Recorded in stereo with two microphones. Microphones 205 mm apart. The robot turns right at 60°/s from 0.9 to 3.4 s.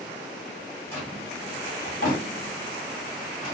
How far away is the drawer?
About 2.0 m.